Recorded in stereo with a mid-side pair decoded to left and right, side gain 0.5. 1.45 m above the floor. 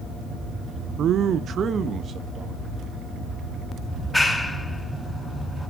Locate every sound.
1.0 s a man speaking: 60° right, 0.8 m; by 3.0 s 45° right, 3.5 m
3.9 s a clap: 10° left, 5 m